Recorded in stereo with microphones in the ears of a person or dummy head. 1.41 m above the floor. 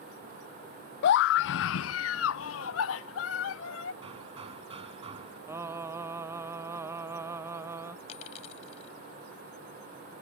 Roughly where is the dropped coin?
Left.